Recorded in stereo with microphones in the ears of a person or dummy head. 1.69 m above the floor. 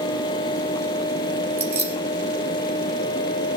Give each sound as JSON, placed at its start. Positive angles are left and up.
{"t": 1.6, "sound": "keys jangling", "side_deg": -10, "distance_m": 2.5}